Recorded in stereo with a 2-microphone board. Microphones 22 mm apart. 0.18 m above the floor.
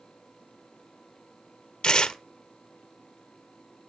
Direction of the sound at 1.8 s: 50° left (ahead or behind).